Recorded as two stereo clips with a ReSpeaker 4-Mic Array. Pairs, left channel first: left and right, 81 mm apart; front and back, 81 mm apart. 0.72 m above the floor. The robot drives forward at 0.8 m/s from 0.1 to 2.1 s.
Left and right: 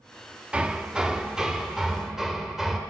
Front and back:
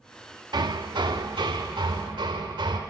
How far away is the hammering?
About 0.7 m.